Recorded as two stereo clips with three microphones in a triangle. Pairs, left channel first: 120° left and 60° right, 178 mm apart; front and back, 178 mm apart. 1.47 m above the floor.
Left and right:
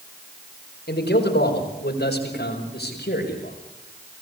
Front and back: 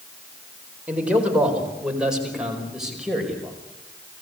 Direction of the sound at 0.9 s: 100° left.